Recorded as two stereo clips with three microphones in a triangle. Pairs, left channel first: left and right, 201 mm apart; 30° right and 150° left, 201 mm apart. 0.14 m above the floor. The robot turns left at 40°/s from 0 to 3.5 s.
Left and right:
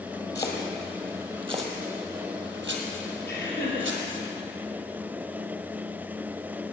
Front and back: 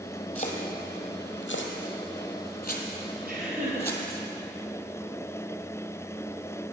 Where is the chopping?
20° left, 1.6 m; by 4.2 s 105° right, 1.6 m.